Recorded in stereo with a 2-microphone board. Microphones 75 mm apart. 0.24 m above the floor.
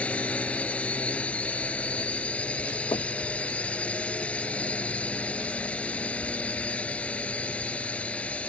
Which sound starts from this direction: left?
Knocking, at 2.9 s.